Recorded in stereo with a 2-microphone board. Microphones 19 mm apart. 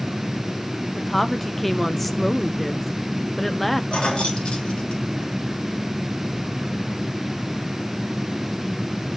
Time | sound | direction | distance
1.0 | a woman speaking | 10° left (ahead or behind) | 0.7 m
3.9 | keys jangling | 65° left (ahead or behind) | 1.6 m